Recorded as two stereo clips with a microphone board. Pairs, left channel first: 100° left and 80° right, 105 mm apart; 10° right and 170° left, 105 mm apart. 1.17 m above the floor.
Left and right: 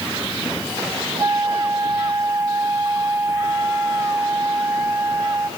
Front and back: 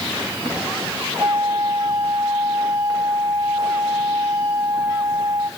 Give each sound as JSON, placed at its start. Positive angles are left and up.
{"t": 1.2, "sound": "a flute", "azimuth_deg": -135, "distance_m": 4.0}